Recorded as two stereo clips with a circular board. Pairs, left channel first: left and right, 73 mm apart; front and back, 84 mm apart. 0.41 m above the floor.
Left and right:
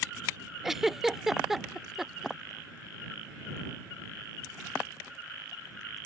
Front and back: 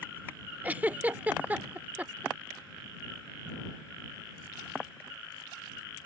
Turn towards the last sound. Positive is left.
turn(degrees=-165)